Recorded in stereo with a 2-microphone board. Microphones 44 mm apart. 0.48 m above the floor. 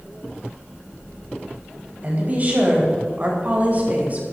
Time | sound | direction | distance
2.0 | a woman speaking | 35° right (ahead or behind) | 3.5 m